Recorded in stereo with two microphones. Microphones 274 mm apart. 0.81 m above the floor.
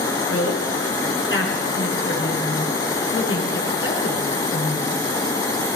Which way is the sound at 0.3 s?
50° left (ahead or behind).